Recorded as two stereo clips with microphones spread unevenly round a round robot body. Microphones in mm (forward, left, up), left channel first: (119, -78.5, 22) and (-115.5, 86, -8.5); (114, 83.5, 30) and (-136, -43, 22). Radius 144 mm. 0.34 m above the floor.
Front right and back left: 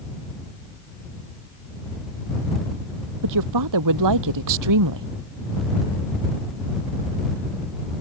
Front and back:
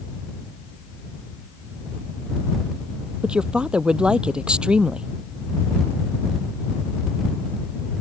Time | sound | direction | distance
3.2 | a woman speaking | 120° left | ?